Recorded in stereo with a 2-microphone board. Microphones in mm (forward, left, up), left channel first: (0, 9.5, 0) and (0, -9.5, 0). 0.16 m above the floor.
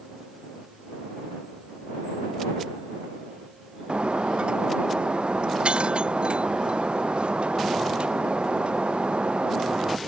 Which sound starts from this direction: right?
Breaking glass, at 3.9 s.